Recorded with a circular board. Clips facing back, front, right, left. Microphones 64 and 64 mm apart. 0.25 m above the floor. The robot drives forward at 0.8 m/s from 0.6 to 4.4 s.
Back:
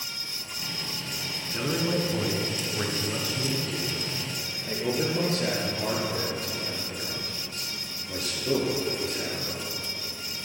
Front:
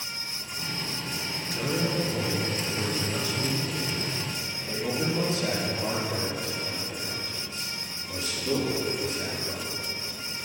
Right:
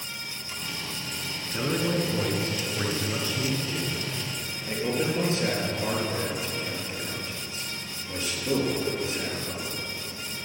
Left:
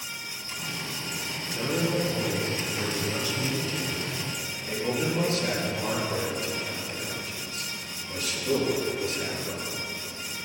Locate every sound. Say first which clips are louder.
1.5 s a man speaking: back 1 dB, right 1 dB; 125° right, 2.5 m; by 9.7 s 155° right, 4.5 m